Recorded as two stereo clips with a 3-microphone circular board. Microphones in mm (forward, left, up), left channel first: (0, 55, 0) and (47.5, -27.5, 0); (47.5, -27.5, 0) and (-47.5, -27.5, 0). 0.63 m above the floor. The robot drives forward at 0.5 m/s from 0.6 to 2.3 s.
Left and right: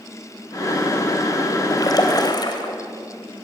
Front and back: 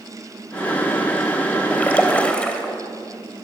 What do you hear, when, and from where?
1.7 s a splash: 75° left, 3.5 m; by 2.7 s 80° left, 3 m